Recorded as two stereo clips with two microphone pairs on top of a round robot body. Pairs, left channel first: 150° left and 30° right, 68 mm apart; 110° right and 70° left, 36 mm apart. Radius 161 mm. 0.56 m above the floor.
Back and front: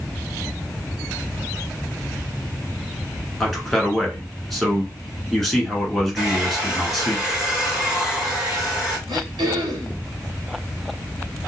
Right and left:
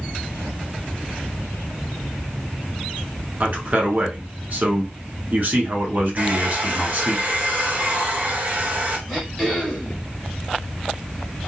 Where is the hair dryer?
50° left, 1.5 m.